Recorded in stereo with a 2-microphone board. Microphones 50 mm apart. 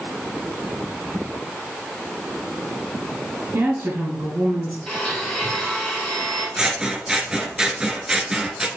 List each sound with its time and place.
3.5 s a woman speaking: 50° right (ahead or behind), 2.5 m
4.9 s a blender: 10° left (ahead or behind), 2.5 m
6.6 s scissors: 15° right (ahead or behind), 0.5 m